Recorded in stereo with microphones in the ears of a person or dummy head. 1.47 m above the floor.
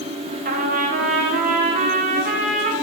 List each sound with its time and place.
0.5 s a trumpet: 45° right (ahead or behind), 1.3 m